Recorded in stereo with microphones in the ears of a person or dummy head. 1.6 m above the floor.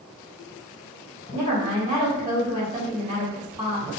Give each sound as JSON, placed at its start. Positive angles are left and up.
{"t": 1.3, "sound": "a woman speaking", "side_deg": -20, "distance_m": 1.7}